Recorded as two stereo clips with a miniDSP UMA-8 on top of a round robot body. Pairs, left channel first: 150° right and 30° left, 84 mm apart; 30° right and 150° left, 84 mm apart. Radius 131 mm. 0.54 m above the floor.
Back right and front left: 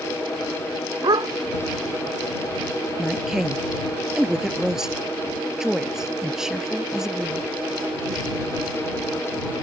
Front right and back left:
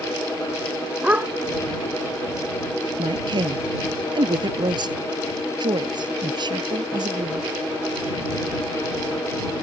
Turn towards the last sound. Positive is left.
turn(degrees=115)